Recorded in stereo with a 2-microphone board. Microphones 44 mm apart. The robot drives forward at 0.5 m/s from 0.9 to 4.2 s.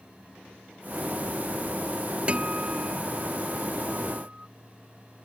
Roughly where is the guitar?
Right.